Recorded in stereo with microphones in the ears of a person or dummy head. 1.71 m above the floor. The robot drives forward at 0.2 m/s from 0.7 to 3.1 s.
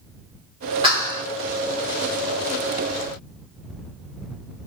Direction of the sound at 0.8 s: 20° right (ahead or behind).